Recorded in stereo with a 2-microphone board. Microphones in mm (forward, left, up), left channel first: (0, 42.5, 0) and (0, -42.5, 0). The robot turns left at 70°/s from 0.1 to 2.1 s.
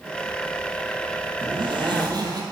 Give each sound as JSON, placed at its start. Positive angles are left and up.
{"t": 1.4, "sound": "a zipper", "azimuth_deg": -80, "distance_m": 1.4}